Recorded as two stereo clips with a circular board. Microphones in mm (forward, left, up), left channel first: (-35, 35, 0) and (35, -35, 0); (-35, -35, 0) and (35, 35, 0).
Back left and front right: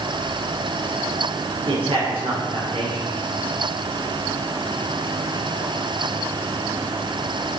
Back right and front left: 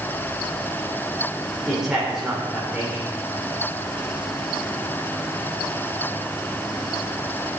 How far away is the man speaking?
About 2.5 m.